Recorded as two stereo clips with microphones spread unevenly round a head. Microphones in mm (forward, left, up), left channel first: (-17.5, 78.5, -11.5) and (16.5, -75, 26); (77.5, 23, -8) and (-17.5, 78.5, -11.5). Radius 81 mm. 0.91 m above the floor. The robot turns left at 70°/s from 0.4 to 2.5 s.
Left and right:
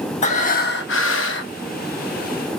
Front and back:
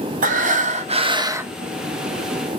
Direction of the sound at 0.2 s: 150° left.